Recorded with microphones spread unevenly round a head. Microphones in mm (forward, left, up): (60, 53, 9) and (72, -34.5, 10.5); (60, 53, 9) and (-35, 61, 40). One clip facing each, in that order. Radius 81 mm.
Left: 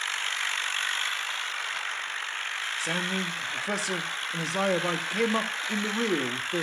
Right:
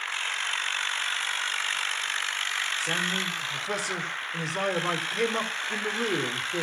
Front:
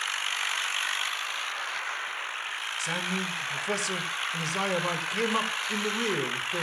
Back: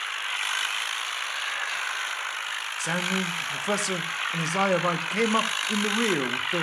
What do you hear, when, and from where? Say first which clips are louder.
2.8 s a man speaking: left 2 dB, back 4 dB; 135° left, 1.6 m